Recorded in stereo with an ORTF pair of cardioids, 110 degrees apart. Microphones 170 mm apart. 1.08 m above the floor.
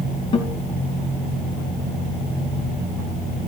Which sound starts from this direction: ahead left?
A guitar, at 0.3 s.